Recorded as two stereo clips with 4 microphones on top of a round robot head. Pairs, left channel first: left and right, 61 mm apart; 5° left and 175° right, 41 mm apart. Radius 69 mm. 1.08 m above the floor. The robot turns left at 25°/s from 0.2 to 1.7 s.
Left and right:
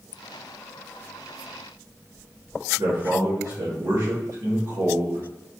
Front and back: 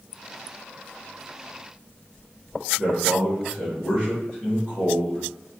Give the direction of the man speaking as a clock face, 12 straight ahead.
2 o'clock.